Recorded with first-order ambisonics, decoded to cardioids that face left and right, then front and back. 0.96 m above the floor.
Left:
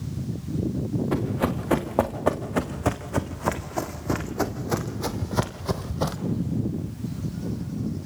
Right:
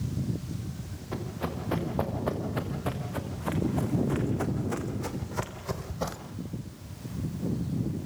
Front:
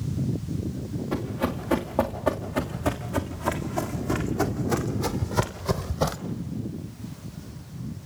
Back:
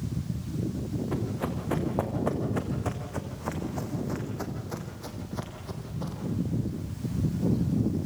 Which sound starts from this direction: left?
Running footsteps, at 1.1 s.